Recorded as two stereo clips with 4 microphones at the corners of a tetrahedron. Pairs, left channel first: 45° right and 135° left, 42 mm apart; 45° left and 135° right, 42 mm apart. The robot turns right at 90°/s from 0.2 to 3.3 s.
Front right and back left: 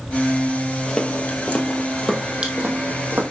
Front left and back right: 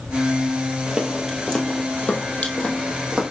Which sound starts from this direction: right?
Footsteps, at 0.9 s.